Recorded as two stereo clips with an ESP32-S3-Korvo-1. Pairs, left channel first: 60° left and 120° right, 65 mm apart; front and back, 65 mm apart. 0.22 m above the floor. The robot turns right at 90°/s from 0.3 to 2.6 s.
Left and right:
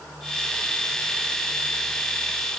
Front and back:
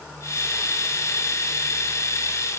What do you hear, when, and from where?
Only background noise.